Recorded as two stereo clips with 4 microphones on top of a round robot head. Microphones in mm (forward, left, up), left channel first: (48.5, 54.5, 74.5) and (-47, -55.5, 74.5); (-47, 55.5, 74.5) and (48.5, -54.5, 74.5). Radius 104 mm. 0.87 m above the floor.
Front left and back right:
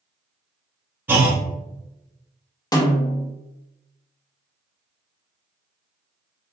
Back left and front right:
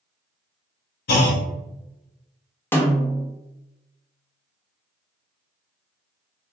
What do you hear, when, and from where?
1.1 s a clunk: 150° left, 0.7 m
2.7 s a snare drum: 70° left, 1.0 m